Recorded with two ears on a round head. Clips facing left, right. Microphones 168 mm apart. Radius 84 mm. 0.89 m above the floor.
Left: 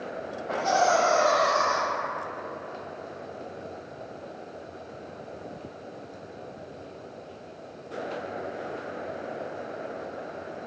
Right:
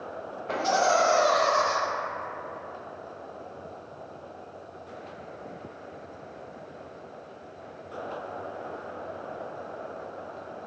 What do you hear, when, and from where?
0.5 s laughter: 35° right (ahead or behind), 0.7 m